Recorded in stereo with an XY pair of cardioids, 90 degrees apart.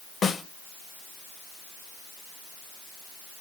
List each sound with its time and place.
0.2 s a snare drum: 55° left, 1.6 m